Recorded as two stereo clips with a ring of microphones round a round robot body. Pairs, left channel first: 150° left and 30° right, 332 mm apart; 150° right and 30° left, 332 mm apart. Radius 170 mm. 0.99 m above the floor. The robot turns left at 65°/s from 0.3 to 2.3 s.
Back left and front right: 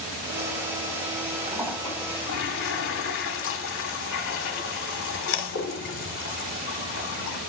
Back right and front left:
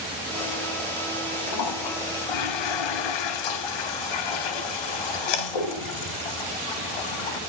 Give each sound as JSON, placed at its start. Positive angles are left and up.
{"t": 1.5, "sound": "a toilet flushing", "azimuth_deg": -100, "distance_m": 1.5}